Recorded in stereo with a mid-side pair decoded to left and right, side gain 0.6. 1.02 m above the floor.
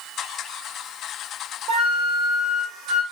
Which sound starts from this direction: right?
A flute, at 1.7 s.